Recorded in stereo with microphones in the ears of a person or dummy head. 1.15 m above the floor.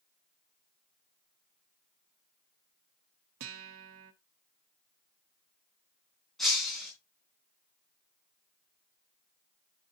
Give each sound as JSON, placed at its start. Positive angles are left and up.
{"t": 3.4, "sound": "a guitar", "side_deg": -75, "distance_m": 1.1}
{"t": 6.4, "sound": "breaking glass", "side_deg": 5, "distance_m": 3.5}